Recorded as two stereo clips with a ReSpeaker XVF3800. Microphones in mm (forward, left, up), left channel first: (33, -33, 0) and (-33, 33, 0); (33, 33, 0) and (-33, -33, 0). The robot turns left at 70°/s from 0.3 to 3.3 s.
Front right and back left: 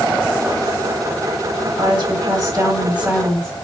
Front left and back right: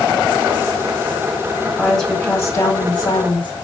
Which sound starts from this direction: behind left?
A woman speaking, at 1.6 s.